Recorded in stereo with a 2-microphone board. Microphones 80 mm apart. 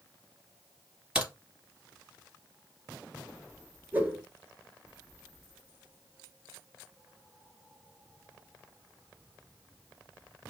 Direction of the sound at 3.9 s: 25° right (ahead or behind).